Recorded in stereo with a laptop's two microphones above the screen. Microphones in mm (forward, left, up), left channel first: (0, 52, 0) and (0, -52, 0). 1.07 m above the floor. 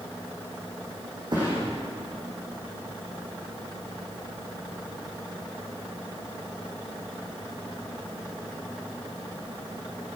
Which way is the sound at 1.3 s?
45° right (ahead or behind).